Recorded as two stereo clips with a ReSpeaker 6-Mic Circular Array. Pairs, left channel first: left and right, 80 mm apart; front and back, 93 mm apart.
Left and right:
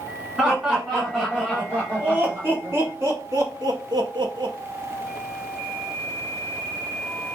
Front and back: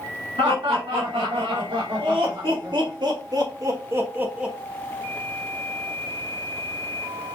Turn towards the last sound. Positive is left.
turn(degrees=-100)